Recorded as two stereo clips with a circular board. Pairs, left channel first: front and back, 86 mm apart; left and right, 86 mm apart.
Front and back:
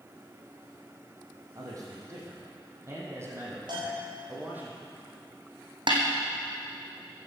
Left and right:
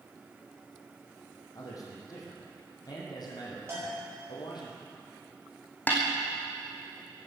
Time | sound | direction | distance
1.6 | a man speaking | 135° left | 5.5 m
3.7 | a bell | 150° right | 8 m
5.9 | a snare drum | 160° left | 3 m